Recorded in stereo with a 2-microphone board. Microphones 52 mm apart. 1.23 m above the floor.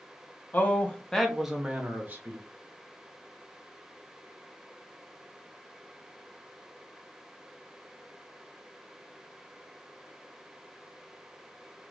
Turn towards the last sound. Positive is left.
turn(degrees=-40)  # may be behind; listen again after turning